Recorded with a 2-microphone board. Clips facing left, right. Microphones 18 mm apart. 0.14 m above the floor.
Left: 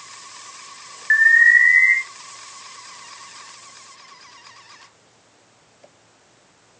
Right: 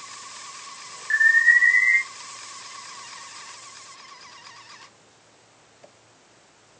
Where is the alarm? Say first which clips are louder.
Left 4 dB; 30° left (ahead or behind), 2.5 m.